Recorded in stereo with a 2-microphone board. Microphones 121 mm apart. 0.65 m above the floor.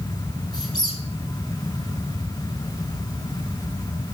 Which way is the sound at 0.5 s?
35° left (ahead or behind).